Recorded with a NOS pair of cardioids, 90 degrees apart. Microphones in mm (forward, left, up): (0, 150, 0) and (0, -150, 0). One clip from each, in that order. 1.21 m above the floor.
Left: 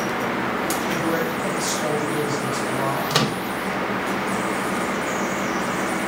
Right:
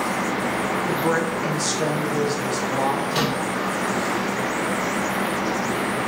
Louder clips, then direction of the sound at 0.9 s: Right 1 dB; 45° right.